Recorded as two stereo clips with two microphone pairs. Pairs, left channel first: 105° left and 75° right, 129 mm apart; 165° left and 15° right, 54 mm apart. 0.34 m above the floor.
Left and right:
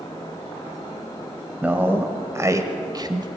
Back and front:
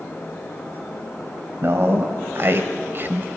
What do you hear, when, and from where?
1.6 s a man speaking: straight ahead, 1.8 m; by 3.3 s 40° right, 1.6 m